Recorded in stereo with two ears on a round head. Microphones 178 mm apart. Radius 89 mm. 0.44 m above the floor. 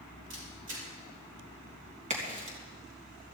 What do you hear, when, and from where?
0.3 s a camera shutter: 65° right (ahead or behind), 6.5 m
2.1 s a crack: 35° right (ahead or behind), 3.5 m